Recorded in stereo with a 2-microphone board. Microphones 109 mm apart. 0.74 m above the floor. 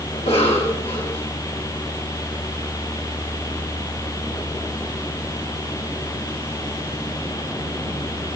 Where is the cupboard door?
No cupboard door in this recording.